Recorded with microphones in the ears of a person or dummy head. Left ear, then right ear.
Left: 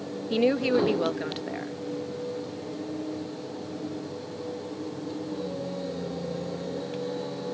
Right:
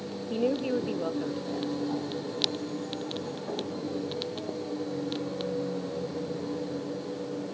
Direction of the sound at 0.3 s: 60° left (ahead or behind).